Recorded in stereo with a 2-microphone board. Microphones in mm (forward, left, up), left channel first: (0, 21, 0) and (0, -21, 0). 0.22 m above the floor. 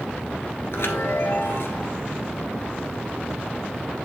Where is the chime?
75° left (ahead or behind), 1.4 m.